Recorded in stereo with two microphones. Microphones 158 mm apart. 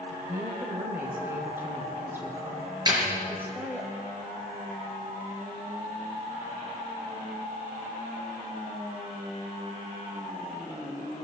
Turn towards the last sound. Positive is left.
turn(degrees=-30)  # may be behind; listen again after turning